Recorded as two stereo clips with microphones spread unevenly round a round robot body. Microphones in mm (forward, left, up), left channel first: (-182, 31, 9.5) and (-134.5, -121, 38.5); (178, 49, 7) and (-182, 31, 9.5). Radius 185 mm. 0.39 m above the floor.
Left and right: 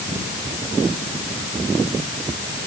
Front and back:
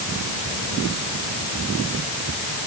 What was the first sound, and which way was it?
Only background noise.